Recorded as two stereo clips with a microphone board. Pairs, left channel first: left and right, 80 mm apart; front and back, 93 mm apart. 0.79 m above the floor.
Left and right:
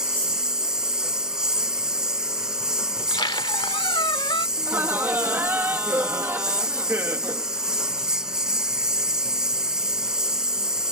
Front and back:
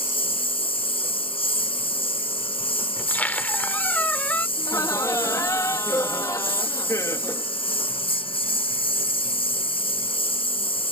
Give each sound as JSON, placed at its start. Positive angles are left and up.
{"t": 0.0, "sound": "a lawn mower", "azimuth_deg": -10}
{"t": 3.0, "sound": "a squeak", "azimuth_deg": 70}
{"t": 4.6, "sound": "laughter", "azimuth_deg": -35}